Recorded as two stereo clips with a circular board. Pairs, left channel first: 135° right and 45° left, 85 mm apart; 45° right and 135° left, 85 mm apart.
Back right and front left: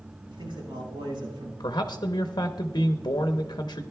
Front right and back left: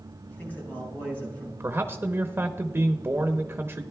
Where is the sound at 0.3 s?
25° left, 6 m.